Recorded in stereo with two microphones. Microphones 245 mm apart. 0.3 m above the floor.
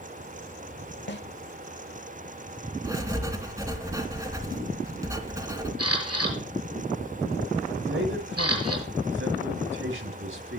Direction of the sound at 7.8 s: 55° right (ahead or behind).